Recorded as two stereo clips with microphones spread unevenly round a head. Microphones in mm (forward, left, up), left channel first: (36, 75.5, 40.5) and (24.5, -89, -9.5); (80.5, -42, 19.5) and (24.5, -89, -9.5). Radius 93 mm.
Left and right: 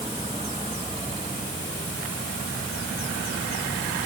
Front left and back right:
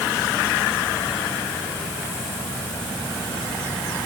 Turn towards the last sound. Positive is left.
No sound to turn to.